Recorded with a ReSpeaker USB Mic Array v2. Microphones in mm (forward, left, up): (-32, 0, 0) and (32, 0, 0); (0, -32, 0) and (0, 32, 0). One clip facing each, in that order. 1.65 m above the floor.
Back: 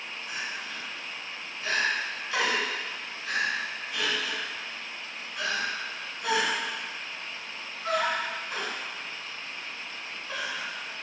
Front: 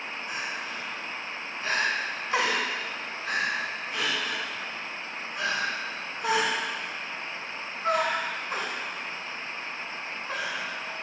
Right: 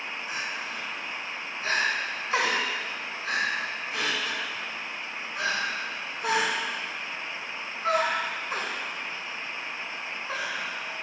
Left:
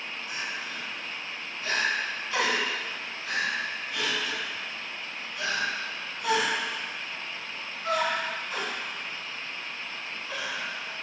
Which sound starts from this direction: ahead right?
Crying, at 0.3 s.